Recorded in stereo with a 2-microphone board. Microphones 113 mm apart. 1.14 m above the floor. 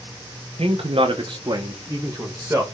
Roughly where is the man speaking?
Right.